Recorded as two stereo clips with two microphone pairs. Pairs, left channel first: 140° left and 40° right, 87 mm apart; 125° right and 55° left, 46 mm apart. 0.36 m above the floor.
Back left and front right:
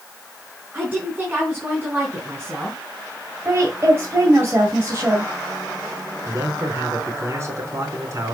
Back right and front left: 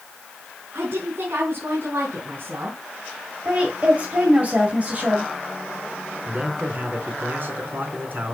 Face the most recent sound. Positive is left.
turn(degrees=15)